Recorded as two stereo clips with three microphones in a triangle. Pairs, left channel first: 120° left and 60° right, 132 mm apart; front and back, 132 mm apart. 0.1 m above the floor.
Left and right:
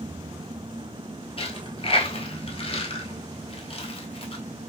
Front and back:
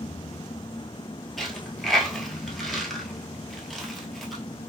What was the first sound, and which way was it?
A dropped coin, 90° left.